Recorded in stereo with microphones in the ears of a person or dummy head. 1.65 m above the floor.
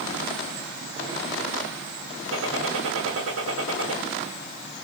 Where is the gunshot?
80° right, 3 m.